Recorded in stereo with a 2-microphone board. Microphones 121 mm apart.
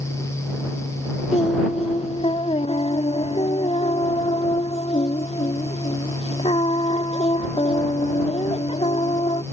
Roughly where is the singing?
Left.